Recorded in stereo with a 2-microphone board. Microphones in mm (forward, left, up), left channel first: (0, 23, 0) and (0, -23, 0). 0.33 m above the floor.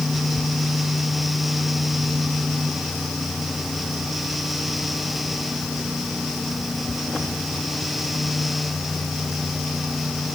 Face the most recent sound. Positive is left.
No sound to turn to.